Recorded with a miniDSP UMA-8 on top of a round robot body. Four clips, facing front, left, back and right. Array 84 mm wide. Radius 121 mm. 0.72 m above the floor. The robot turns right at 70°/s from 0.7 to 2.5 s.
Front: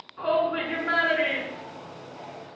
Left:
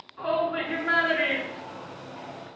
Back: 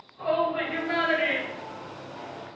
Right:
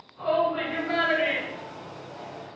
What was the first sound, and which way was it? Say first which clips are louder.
A shout: right 2 dB, front 1 dB; 25° left.